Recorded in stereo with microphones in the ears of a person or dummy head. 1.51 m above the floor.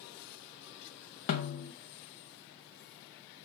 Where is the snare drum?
35° left (ahead or behind), 0.8 m.